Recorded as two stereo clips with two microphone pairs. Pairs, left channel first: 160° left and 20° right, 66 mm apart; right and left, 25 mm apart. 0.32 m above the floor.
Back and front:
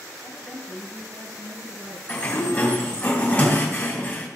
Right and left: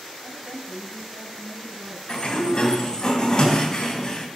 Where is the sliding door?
145° right, 2.5 m.